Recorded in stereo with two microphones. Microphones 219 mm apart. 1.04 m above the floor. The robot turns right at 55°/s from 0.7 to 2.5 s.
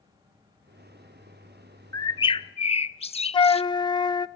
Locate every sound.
1.9 s a bird: 25° left, 0.5 m; by 3.6 s 55° left, 0.5 m
3.3 s a flute: 20° left (ahead or behind), 0.5 m